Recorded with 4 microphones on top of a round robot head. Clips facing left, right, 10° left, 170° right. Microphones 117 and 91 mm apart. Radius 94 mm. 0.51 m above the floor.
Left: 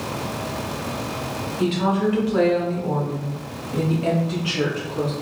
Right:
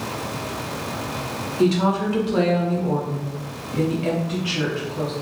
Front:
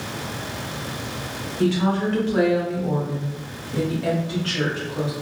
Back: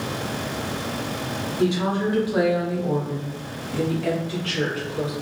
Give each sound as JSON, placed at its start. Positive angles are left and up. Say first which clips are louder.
{"t": 1.6, "sound": "a woman speaking", "louder": "right 2 dB, front 2 dB", "azimuth_deg": -110, "distance_m": 1.1}